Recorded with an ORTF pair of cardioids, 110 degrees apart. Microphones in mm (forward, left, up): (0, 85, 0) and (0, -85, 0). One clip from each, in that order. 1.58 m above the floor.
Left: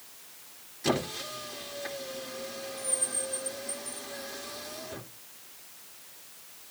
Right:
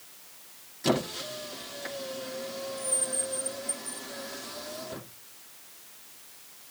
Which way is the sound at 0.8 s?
15° right.